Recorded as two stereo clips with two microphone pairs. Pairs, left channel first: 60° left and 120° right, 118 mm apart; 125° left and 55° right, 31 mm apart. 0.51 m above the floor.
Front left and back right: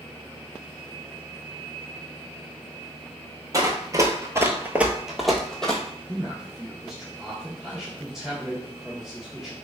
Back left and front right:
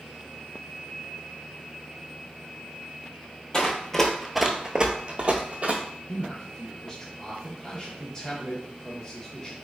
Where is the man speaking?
150° left, 0.7 m.